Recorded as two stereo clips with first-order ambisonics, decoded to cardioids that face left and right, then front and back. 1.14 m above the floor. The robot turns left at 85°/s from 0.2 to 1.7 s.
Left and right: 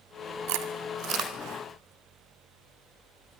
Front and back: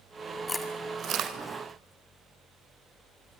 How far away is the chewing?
About 2 m.